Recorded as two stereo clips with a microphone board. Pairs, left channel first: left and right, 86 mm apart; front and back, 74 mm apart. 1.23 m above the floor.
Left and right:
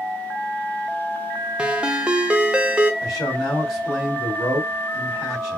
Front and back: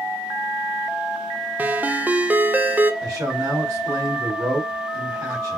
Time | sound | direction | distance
1.6 | a ringtone | 155° right | 0.5 m
3.0 | a man speaking | 140° left | 3.5 m